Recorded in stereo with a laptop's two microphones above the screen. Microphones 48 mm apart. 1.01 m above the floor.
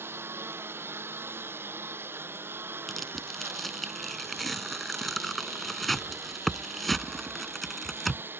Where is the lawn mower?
50° right (ahead or behind); by 8.4 s 45° right (ahead or behind).